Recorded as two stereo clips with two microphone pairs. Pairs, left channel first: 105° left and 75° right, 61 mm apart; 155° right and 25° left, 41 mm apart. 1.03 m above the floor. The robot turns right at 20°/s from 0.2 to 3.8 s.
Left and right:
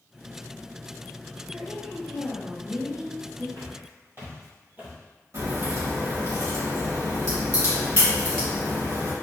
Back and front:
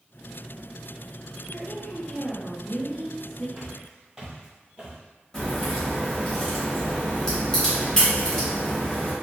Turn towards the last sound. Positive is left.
turn(degrees=-80)